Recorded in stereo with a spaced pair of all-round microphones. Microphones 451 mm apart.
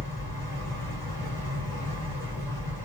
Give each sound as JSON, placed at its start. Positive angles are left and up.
{"t": 0.0, "sound": "a fan", "side_deg": 10, "distance_m": 2.5}